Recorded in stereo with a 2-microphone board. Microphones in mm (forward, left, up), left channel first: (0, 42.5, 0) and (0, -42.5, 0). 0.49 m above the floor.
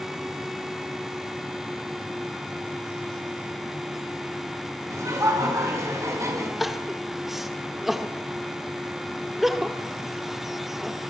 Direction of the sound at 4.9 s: 35° right (ahead or behind).